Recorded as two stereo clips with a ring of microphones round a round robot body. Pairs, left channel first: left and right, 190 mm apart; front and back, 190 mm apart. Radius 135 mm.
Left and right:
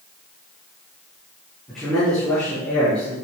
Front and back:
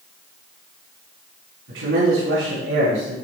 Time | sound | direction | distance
1.7 | a man speaking | straight behind | 5.5 m